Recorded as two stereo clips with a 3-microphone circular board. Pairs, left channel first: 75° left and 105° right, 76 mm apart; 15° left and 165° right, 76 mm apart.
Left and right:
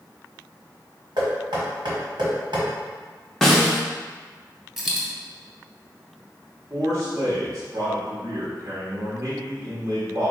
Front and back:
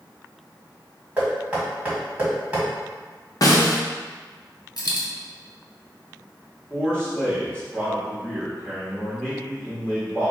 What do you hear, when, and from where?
1.2 s knocking: 90° right, 1.6 m
3.4 s a snare drum: 5° right, 0.7 m
4.8 s a dropped coin: 20° right, 1.1 m
6.7 s a man speaking: 60° right, 1.6 m